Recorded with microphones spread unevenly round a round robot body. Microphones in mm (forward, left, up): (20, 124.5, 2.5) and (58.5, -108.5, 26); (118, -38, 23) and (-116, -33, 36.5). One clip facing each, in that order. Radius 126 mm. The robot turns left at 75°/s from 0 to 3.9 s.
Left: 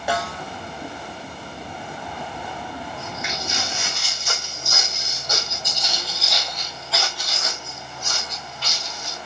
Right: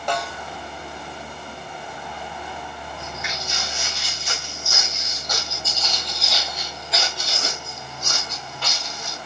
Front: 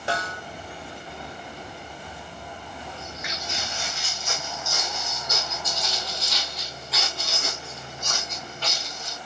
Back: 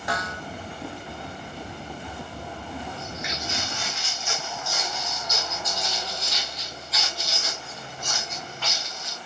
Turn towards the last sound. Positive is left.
turn(degrees=-60)